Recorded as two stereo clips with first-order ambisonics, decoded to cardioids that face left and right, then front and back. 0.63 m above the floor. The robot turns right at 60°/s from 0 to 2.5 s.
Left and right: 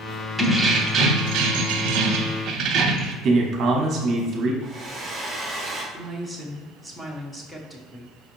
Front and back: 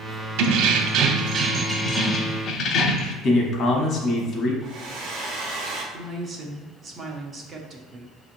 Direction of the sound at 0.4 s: 175° right.